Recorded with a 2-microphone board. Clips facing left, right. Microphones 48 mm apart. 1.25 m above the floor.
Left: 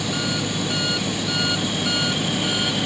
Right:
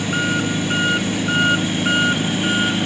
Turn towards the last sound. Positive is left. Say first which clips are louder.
# right 5 dB
turn(degrees=-40)  # may be behind; listen again after turning